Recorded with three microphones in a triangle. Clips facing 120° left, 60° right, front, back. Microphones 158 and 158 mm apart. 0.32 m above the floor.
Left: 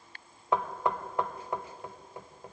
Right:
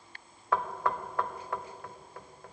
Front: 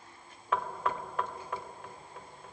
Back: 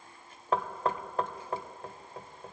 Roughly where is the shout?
I don't hear a shout.